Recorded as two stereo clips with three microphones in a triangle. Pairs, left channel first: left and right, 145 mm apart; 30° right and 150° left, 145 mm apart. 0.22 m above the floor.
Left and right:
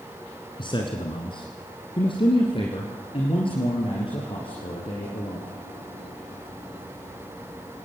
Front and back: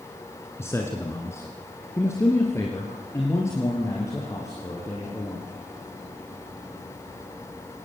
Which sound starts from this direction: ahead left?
A man speaking, at 0.6 s.